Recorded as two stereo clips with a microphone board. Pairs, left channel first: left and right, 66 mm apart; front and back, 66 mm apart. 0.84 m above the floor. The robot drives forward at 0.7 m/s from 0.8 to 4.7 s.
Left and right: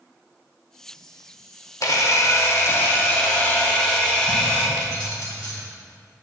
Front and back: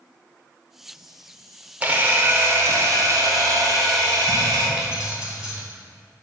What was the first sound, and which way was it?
A camera shutter, 115° left.